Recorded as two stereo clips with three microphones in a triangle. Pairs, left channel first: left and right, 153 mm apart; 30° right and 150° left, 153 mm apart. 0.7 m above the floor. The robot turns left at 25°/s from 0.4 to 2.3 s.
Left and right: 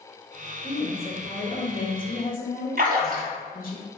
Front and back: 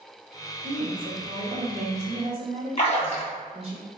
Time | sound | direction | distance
0.6 | a woman speaking | 145° left | 1.6 m
2.8 | a splash | 75° right | 1.8 m